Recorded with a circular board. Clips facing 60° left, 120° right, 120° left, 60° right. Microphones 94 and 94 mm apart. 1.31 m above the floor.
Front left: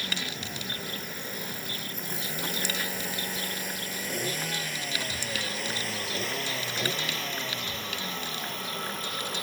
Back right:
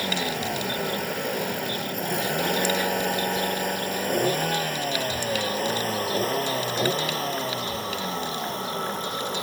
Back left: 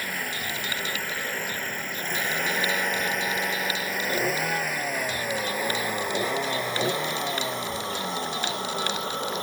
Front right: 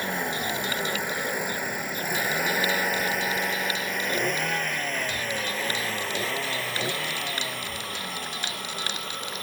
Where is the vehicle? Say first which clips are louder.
Back right 9 dB, front right 4 dB; 125° right; by 9.4 s straight behind.